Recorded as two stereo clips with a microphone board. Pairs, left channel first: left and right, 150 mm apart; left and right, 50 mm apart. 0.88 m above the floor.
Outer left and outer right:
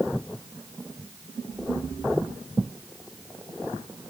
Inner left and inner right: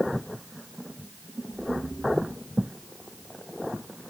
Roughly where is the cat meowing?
No cat meowing in this recording.